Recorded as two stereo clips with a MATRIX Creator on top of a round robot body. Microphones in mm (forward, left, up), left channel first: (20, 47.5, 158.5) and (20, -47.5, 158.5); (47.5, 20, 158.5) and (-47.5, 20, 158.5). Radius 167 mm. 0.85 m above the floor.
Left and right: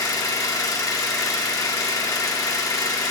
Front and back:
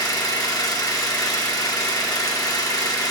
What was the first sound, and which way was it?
An engine running, 45° left.